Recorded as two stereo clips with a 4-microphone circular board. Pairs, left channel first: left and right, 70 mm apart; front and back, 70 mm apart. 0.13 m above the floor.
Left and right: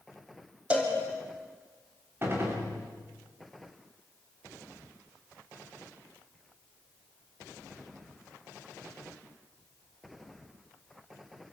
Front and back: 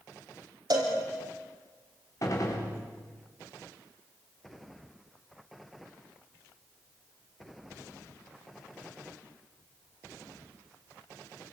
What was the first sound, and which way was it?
A cowbell, 165° right.